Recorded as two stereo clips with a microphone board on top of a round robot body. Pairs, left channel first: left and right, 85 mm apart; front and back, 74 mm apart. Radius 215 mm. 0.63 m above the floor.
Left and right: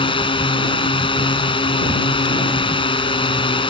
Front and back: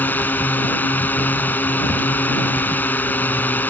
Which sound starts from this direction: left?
A drone, at 0.0 s.